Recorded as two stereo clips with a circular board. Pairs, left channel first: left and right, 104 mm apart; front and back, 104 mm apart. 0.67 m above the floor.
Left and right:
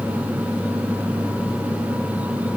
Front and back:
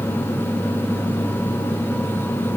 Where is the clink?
No clink in this recording.